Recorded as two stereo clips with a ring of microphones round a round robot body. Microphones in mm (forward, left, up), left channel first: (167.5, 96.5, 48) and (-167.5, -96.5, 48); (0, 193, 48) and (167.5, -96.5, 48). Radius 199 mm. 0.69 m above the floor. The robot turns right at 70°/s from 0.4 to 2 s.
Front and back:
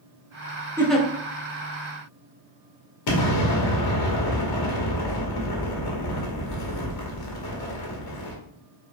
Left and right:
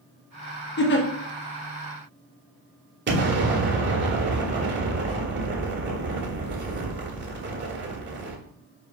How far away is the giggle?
About 0.8 m.